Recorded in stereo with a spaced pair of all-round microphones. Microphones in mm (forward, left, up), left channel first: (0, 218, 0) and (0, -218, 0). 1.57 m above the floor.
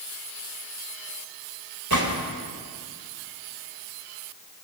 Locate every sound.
1.9 s a gunshot: 45° right (ahead or behind), 3 m